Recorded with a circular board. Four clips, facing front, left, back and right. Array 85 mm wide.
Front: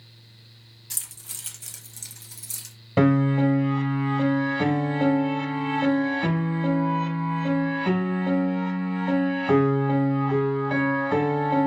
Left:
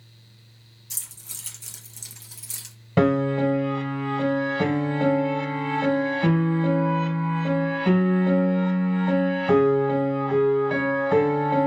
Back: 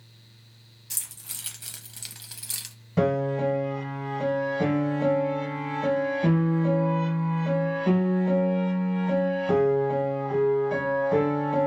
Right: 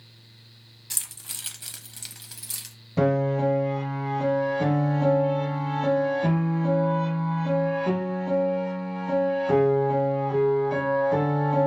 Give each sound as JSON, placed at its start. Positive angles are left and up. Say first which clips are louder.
{"t": 0.9, "sound": "keys jangling", "louder": "right 4 dB, even", "azimuth_deg": -80, "distance_m": 0.9}
{"t": 3.0, "sound": "a piano", "louder": "left 2 dB, front 4 dB", "azimuth_deg": 50, "distance_m": 0.9}